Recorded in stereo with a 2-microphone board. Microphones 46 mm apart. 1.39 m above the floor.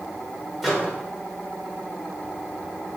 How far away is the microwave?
About 1.1 m.